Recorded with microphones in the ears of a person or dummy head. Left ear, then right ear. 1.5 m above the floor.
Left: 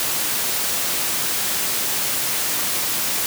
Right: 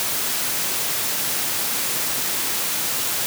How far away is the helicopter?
No helicopter in this recording.